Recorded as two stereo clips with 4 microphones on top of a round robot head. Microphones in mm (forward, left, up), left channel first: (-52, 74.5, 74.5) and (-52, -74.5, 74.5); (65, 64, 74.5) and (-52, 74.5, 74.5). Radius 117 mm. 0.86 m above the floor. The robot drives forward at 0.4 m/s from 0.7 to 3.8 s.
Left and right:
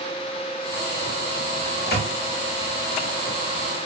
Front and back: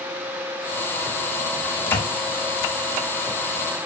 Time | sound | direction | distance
1.7 | a microwave | 25° left | 1.7 m